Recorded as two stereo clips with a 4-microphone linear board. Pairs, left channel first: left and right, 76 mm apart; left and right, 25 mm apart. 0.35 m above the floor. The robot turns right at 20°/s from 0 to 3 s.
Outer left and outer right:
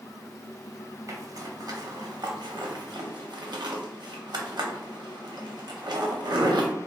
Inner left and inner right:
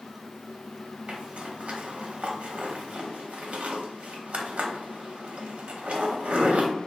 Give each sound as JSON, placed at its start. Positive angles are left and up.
{"t": 1.1, "sound": "a zipper", "side_deg": -45, "distance_m": 0.6}